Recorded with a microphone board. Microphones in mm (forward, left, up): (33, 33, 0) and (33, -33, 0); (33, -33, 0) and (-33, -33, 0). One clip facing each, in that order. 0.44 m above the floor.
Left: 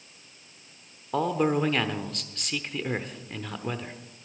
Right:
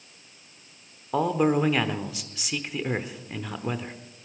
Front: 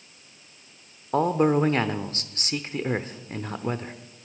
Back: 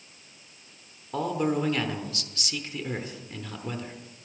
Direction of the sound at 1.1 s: 10° right.